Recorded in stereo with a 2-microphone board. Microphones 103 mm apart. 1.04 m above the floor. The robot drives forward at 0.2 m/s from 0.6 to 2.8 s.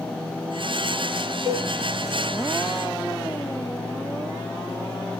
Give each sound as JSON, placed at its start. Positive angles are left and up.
{"t": 1.4, "sound": "a cowbell", "side_deg": 70, "distance_m": 1.5}